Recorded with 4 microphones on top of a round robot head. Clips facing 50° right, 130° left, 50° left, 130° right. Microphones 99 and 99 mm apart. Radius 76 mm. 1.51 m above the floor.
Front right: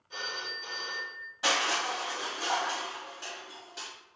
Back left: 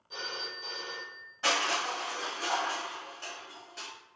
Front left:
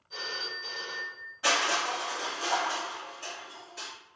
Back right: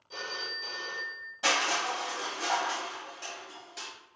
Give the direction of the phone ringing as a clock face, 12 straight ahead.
5 o'clock.